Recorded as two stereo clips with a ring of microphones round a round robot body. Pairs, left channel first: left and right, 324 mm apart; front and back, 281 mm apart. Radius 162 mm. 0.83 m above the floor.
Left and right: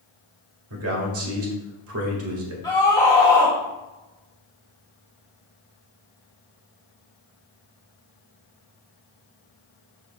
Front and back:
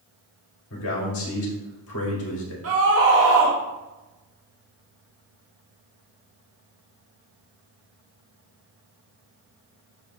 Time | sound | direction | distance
0.7 | a man speaking | 45° right | 1.8 m
2.6 | a scream | 165° left | 1.4 m